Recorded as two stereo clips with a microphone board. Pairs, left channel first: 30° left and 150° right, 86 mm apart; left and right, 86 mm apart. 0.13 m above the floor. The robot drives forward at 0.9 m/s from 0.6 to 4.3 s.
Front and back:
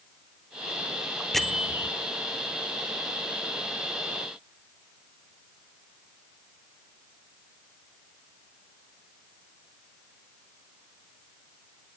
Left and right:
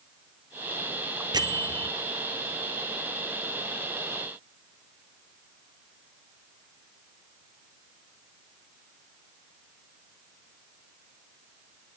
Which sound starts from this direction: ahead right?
A bell, at 1.3 s.